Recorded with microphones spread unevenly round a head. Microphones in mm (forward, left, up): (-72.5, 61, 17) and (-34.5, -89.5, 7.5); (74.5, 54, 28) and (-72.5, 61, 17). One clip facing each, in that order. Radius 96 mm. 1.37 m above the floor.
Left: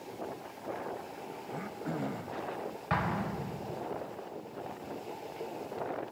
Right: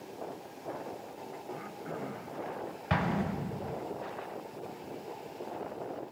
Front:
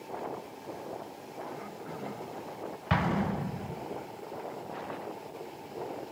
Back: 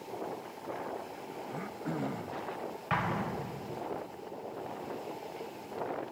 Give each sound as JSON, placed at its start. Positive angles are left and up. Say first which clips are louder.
{"t": 1.5, "sound": "throat clearing", "louder": "left 4 dB, back 3 dB", "azimuth_deg": 155, "distance_m": 0.6}
{"t": 2.9, "sound": "an explosion", "louder": "right 3 dB, front 5 dB", "azimuth_deg": -20, "distance_m": 0.6}